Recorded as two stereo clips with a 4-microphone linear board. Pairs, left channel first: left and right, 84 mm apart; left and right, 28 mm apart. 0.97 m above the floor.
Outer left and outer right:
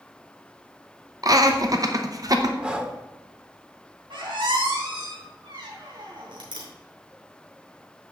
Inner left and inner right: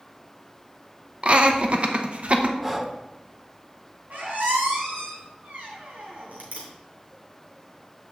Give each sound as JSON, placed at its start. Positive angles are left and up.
{"t": 1.2, "sound": "laughter", "side_deg": -45, "distance_m": 0.7}
{"t": 2.6, "sound": "breathing", "side_deg": -10, "distance_m": 0.7}
{"t": 4.1, "sound": "a squeak", "side_deg": -75, "distance_m": 2.5}